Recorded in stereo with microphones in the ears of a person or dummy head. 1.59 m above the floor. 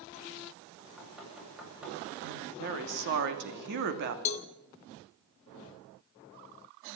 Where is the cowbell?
35° left (ahead or behind), 1.3 m.